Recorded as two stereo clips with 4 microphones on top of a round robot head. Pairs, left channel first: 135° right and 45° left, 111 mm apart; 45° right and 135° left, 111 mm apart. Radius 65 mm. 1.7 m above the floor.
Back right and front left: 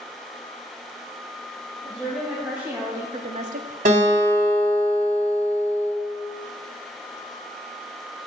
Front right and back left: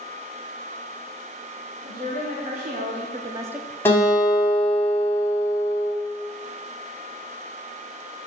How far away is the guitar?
About 2.5 m.